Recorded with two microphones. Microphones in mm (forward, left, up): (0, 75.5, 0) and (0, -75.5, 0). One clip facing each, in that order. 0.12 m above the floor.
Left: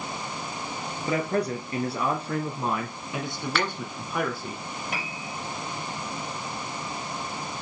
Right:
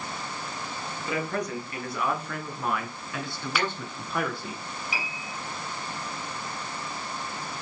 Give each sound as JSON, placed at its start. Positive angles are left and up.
{"t": 1.1, "sound": "a man speaking", "side_deg": 35, "distance_m": 2.0}
{"t": 3.5, "sound": "a finger snap", "side_deg": -5, "distance_m": 1.4}
{"t": 4.9, "sound": "a piano", "side_deg": 60, "distance_m": 3.0}